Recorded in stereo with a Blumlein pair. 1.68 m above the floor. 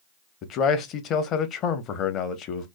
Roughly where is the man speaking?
Ahead left.